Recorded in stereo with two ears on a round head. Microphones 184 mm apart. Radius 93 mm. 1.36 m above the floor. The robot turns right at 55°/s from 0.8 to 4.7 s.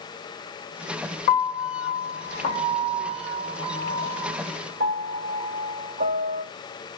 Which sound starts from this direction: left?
A piano, at 1.3 s.